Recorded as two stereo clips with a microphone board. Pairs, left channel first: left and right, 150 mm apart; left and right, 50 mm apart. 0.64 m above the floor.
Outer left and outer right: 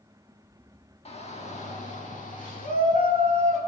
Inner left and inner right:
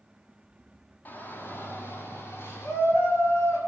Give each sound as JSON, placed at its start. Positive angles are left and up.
{"t": 1.1, "sound": "a shout", "side_deg": 40, "distance_m": 1.4}